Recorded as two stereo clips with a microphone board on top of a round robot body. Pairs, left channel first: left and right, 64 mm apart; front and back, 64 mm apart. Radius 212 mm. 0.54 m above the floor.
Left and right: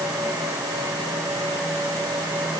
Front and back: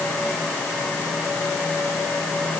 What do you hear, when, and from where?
Only background noise.